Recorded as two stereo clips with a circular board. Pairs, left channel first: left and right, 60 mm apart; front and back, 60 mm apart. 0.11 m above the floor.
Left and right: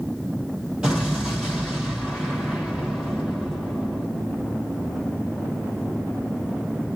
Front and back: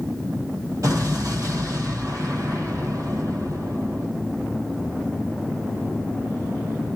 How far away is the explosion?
About 2 m.